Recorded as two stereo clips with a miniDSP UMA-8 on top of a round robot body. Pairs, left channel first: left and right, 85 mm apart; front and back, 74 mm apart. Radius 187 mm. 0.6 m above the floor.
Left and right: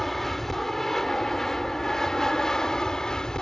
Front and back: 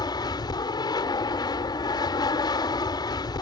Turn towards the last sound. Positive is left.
turn(degrees=10)